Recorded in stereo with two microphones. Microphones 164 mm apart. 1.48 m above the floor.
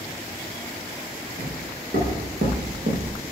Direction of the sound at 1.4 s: 70° right (ahead or behind).